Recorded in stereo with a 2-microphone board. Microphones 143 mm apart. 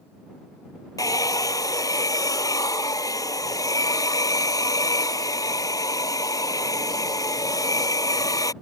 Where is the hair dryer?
25° left (ahead or behind).